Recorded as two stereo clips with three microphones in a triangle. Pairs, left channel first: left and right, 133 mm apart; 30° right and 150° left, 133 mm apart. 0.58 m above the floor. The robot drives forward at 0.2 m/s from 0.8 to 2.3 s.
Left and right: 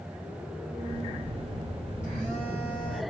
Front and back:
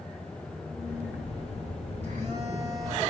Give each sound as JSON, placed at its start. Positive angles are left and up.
{"t": 0.9, "sound": "a phone buzzing", "azimuth_deg": 115, "distance_m": 3.0}